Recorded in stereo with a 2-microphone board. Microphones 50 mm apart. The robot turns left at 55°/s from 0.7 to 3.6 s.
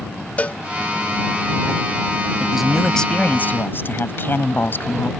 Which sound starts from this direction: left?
A cowbell, at 0.4 s.